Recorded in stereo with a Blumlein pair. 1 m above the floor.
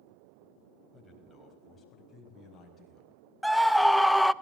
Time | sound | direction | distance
0.9 | a man speaking | 10° left | 4.5 m
3.4 | a scream | straight ahead | 0.6 m